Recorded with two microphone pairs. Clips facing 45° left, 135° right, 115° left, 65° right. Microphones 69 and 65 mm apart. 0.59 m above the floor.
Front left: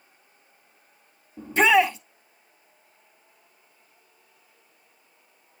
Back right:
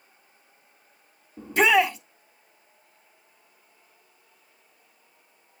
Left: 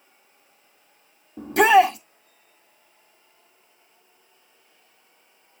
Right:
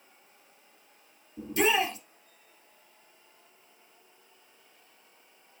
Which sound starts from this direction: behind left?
A shout, at 1.4 s.